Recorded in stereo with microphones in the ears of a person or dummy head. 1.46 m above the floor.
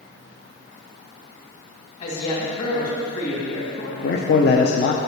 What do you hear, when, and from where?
2.0 s a woman speaking: 45° left (ahead or behind), 2.5 m
4.0 s a man speaking: 50° left (ahead or behind), 0.5 m